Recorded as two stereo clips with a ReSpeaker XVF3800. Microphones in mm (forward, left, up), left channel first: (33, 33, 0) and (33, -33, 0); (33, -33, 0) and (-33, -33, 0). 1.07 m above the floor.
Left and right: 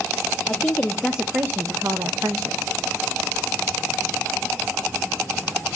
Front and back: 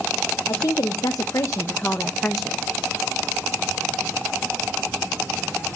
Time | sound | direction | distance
0.5 | a woman speaking | 30° left | 1.1 m